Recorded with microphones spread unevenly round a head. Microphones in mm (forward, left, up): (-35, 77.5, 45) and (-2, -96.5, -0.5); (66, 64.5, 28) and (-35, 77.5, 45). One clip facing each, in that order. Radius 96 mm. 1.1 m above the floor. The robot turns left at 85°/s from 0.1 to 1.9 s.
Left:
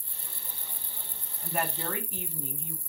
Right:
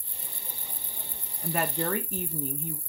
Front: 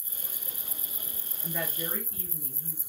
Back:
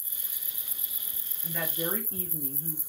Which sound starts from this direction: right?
A woman speaking, at 1.4 s.